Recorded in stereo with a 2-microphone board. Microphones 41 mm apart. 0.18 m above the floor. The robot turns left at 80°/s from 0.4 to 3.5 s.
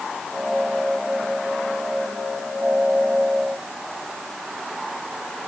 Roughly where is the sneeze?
No sneeze in this recording.